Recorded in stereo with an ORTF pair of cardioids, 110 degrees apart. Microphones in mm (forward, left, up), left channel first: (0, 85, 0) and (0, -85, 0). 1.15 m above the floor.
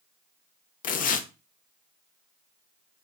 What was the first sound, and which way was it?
Tearing paper, 55° left.